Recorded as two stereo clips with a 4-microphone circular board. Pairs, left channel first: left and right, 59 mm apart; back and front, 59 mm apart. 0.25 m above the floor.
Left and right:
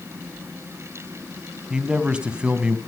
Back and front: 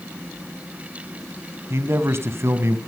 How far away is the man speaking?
About 1.9 m.